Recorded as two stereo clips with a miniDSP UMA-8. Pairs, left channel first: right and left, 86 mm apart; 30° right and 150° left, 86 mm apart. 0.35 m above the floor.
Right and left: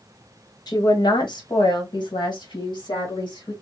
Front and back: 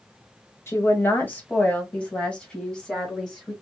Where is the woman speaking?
80° right, 1.4 m; by 3.5 s 110° right, 3.5 m.